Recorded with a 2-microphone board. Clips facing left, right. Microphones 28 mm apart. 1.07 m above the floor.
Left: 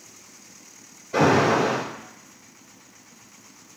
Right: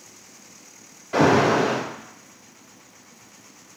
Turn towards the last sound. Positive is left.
turn(degrees=-75)  # may be behind; listen again after turning